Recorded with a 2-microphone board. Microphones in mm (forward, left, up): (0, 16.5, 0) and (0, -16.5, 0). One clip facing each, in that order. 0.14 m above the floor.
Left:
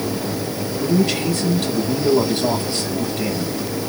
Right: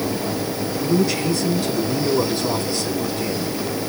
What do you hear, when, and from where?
0.8 s a man speaking: 60° left (ahead or behind), 4.5 m